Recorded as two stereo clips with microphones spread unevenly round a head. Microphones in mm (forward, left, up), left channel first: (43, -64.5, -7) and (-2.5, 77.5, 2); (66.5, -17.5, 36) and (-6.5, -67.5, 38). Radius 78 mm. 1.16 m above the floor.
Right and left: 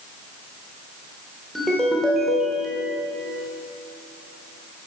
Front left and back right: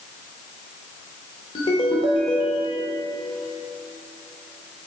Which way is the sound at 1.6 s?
20° left.